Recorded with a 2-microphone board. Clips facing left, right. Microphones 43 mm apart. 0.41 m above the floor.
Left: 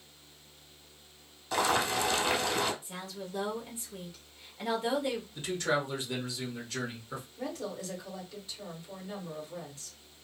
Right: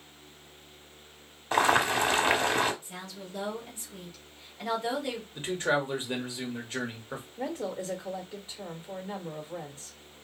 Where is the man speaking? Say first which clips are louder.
Right 5 dB; 30° right (ahead or behind), 0.9 m.